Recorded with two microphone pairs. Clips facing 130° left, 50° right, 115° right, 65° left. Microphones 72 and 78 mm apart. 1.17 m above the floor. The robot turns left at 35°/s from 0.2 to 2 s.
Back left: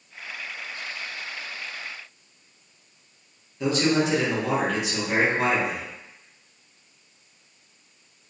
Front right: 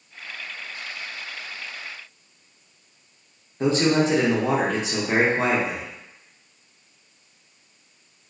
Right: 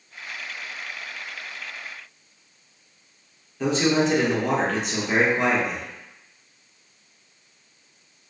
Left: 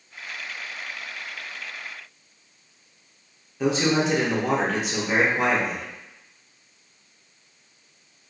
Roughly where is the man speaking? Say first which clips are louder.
Front right 2 dB, right 1 dB; ahead right.